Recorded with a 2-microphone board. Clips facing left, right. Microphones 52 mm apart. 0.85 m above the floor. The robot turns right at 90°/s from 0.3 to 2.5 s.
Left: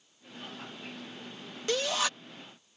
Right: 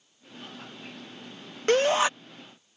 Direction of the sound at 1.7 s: 70° right.